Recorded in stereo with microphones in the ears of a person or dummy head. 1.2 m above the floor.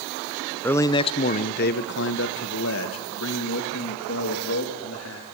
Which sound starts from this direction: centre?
A man speaking, at 0.6 s.